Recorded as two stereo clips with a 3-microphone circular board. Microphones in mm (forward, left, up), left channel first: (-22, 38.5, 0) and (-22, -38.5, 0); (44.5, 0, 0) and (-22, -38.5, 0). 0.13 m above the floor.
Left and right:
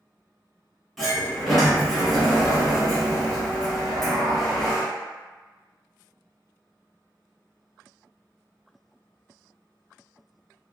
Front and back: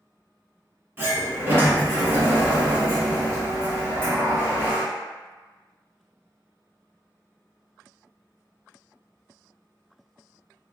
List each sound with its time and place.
1.0 s a sliding door: 170° right, 1.6 m